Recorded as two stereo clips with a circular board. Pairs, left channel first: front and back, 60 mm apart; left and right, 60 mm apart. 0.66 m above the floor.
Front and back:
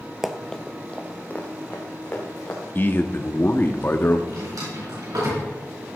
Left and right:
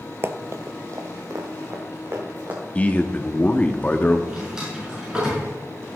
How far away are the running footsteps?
About 0.8 m.